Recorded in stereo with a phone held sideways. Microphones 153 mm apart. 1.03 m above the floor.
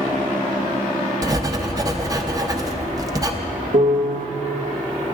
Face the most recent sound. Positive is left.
turn(degrees=-60)  # may be behind; listen again after turning